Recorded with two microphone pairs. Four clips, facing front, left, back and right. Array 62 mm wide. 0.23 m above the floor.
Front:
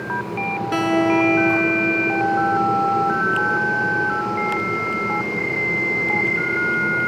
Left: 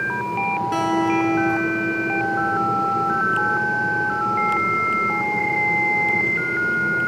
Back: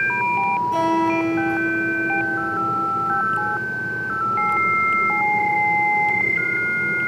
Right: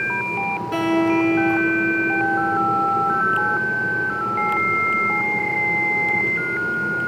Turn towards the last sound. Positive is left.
turn(degrees=5)